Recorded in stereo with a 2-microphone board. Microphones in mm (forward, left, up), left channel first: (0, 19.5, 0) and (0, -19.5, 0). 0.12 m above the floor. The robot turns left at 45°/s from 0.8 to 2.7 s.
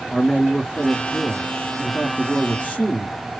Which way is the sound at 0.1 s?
15° left (ahead or behind).